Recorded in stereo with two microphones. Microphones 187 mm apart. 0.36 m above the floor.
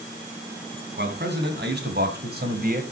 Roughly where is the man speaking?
Right.